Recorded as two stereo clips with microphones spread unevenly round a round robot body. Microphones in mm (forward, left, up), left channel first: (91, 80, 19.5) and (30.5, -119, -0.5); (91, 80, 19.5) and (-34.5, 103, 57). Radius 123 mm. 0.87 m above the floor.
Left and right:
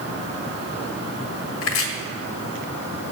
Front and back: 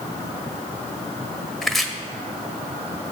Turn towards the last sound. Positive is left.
turn(degrees=70)